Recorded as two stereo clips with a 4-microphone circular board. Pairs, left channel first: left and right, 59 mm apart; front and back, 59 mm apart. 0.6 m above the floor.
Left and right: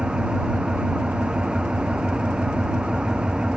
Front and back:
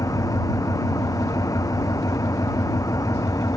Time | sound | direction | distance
0.0 | an engine running | 15° right | ?